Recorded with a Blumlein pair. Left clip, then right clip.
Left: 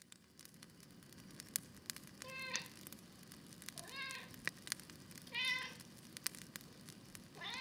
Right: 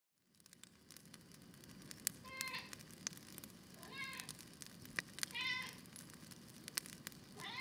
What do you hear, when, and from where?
2.2 s a cat meowing: 15° left, 2.5 m